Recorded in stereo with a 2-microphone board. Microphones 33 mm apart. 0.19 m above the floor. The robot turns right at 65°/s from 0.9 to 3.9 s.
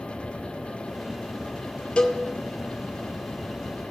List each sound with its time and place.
2.0 s a cowbell: 30° left (ahead or behind), 3.5 m; by 2.2 s 45° left (ahead or behind), 3.5 m